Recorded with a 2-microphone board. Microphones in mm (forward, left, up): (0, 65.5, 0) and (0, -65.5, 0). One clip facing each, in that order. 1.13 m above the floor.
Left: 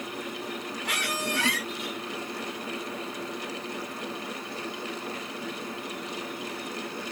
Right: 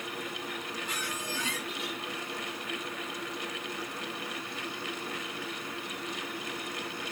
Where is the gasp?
No gasp in this recording.